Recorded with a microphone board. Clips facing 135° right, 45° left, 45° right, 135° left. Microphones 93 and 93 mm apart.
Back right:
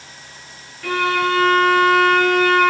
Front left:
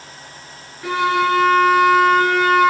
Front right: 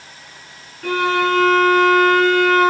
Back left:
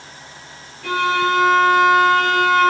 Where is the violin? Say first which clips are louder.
Front left 2 dB, front right 1 dB; 20° right, 4 m.